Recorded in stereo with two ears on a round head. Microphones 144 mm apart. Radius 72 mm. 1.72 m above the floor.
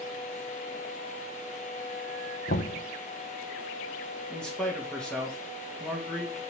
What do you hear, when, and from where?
2.5 s knocking: 70° left (ahead or behind), 1.2 m
4.3 s a man speaking: 5° left (ahead or behind), 1.8 m